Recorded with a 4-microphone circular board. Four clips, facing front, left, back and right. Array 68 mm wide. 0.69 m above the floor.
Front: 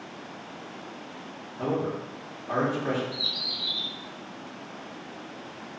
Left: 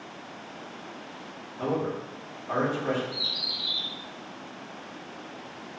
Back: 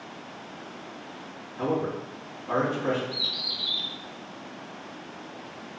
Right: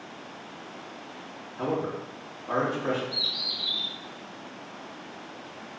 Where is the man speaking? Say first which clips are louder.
Even, back 1 dB; 130° right, 1.1 m.